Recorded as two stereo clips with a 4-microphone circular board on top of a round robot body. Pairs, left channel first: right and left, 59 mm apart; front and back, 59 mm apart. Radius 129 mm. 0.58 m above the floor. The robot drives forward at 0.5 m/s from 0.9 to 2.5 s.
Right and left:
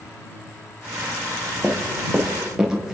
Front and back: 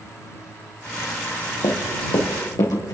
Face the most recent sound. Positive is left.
turn(degrees=10)